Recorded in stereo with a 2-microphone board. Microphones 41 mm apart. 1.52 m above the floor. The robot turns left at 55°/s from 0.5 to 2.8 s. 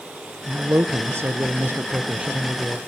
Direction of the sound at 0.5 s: 55° right.